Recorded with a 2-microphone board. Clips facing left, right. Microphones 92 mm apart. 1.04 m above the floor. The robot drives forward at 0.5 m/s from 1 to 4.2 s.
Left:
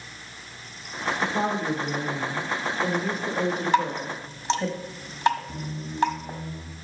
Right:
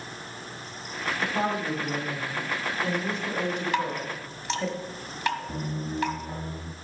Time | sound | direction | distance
1.2 | a woman speaking | 5° left (ahead or behind) | 3 m
3.7 | dripping | 25° left (ahead or behind) | 1.7 m
5.5 | a squeak | 30° right (ahead or behind) | 0.5 m